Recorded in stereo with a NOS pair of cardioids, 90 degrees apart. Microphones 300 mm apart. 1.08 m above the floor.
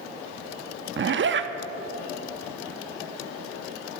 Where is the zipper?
40° right, 1.0 m.